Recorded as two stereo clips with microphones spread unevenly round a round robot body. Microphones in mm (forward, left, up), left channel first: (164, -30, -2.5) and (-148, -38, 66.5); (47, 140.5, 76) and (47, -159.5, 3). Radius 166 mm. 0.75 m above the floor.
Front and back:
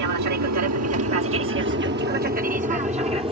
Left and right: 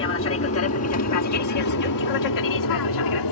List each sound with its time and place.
0.0 s an aircraft: 145° left; by 3.3 s 100° left